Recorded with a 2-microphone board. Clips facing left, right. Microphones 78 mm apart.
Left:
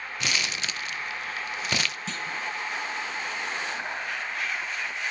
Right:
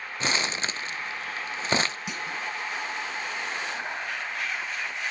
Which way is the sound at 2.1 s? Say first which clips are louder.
Even; 15° right (ahead or behind).